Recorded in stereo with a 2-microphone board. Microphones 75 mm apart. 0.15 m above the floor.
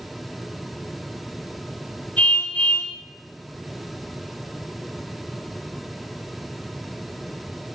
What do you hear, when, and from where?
2.2 s a car horn: 20° left (ahead or behind), 9 m